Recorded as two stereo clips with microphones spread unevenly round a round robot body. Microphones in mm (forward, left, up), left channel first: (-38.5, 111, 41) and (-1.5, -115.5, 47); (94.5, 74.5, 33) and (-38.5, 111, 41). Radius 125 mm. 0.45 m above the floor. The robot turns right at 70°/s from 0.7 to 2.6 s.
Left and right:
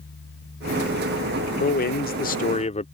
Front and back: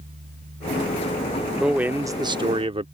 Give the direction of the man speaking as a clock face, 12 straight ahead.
10 o'clock.